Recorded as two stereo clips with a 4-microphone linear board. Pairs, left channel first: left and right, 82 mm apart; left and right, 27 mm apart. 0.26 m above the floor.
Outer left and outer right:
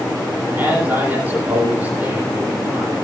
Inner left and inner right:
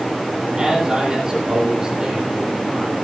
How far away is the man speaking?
About 7.5 m.